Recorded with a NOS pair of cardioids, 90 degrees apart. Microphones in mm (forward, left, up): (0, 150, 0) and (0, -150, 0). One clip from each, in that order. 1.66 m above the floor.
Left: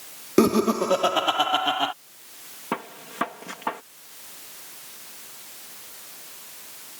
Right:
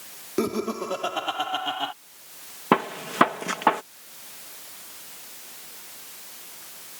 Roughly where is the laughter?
Ahead left.